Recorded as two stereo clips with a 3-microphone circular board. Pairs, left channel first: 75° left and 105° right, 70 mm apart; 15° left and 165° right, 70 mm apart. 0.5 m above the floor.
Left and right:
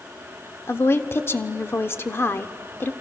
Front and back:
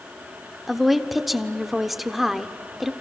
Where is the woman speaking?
110° left, 0.9 m.